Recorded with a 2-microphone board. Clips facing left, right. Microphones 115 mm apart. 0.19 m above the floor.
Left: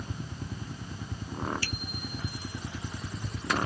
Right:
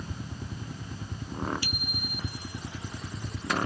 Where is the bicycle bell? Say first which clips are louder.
Right 1 dB; 15° right (ahead or behind).